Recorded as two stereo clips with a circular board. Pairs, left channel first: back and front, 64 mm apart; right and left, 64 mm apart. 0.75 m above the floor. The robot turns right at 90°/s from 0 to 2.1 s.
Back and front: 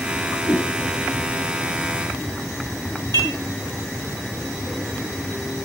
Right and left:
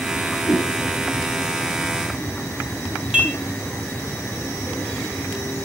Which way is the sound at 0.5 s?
110° right.